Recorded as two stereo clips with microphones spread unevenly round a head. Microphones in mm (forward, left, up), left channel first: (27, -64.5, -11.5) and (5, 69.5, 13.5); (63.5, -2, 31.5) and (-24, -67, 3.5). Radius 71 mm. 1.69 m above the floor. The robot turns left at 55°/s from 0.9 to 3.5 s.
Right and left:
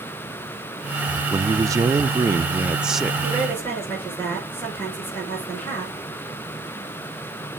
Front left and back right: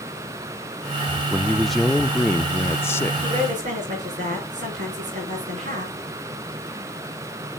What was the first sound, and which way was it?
A man speaking, 125° left.